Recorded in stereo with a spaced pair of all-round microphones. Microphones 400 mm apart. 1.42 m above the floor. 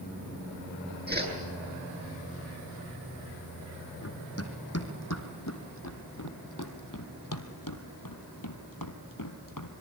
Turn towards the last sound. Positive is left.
turn(degrees=50)  # may be behind; listen again after turning